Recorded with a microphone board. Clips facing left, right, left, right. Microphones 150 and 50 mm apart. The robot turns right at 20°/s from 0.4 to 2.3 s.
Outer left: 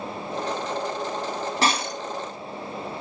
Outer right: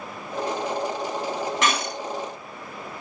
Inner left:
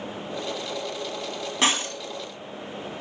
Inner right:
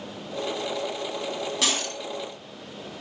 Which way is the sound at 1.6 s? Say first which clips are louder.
Outer left 3 dB, inner left 6 dB; 35° left (ahead or behind).